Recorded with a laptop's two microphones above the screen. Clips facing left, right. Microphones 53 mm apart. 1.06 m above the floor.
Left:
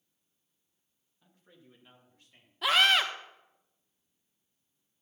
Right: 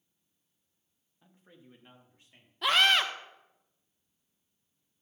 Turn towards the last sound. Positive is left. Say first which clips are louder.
# even
turn(degrees=0)  # may be behind; listen again after turning